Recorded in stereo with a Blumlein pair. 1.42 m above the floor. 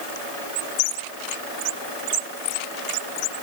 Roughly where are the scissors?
I don't hear scissors.